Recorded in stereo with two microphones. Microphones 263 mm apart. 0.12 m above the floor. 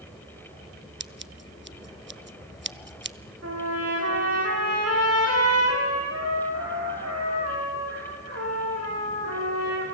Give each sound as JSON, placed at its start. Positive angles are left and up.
{"t": 1.0, "sound": "scissors", "side_deg": -45, "distance_m": 0.5}
{"t": 3.4, "sound": "a trumpet", "side_deg": -65, "distance_m": 9.0}